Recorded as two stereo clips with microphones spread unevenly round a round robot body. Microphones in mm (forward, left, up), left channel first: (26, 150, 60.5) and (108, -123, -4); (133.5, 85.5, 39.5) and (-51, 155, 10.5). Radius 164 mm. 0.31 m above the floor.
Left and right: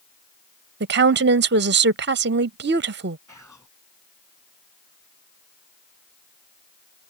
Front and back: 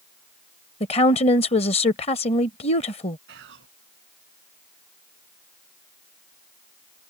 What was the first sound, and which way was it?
A woman speaking, 85° right.